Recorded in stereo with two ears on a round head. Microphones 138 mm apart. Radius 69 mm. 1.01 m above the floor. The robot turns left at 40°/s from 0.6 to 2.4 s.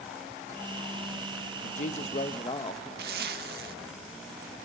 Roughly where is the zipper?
Right.